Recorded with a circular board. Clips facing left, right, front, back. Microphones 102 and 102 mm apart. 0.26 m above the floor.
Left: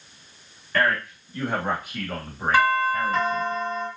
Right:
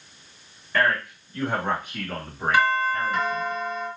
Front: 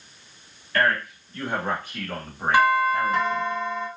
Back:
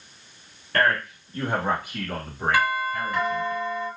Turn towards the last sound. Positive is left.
turn(degrees=55)